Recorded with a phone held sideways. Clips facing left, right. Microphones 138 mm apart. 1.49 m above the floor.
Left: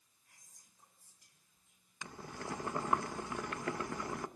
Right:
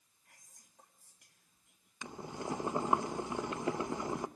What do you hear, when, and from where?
0.2 s whispering: 75° right (ahead or behind), 3.5 m
2.0 s boiling: 20° right (ahead or behind), 0.7 m